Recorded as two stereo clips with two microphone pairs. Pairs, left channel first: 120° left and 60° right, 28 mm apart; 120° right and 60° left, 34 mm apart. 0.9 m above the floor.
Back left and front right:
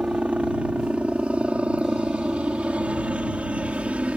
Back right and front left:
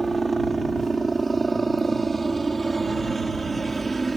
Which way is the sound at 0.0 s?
30° right.